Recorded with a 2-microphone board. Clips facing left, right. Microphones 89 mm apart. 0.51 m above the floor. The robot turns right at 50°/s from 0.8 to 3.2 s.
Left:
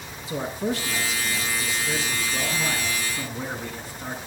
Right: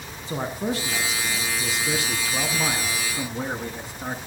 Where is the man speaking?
140° right, 5 m; by 4.2 s 20° right, 5 m.